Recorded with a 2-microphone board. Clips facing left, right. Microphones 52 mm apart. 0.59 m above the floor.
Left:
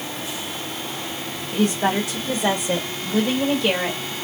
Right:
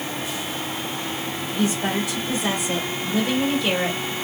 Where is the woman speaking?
45° left (ahead or behind), 1.9 m; by 4.1 s 5° left (ahead or behind), 2 m.